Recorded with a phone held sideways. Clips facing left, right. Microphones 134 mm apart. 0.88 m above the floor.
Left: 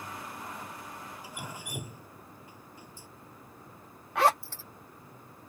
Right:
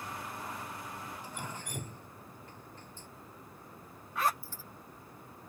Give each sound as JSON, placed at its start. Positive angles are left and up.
{"t": 1.2, "sound": "dripping", "side_deg": 10}
{"t": 4.2, "sound": "a zipper", "side_deg": 75}